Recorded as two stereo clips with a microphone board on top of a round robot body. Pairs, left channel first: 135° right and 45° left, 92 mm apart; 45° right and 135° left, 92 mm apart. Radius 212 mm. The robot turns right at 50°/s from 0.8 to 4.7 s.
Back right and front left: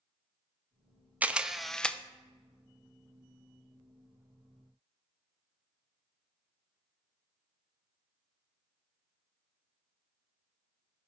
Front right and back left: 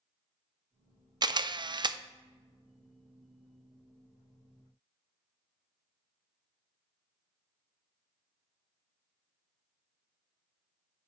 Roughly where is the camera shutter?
Behind left.